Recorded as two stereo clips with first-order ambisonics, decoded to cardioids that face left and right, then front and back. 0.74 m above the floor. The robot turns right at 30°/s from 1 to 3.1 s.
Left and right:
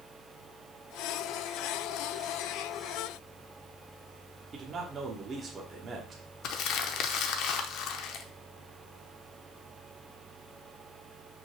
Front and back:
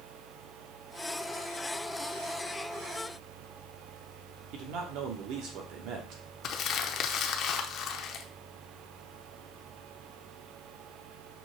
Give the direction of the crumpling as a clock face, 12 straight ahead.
10 o'clock.